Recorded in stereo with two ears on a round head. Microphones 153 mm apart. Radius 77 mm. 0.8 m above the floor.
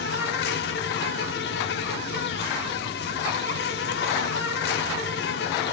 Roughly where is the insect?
Left.